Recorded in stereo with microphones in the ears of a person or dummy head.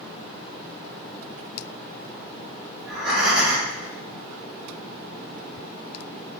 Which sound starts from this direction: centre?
Breathing, at 2.8 s.